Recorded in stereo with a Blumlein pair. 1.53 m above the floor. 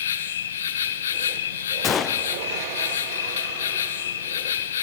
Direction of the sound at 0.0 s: 65° left.